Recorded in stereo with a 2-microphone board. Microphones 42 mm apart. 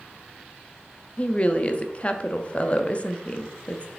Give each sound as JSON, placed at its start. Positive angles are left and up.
{"t": 1.2, "sound": "a woman speaking", "side_deg": 30, "distance_m": 0.8}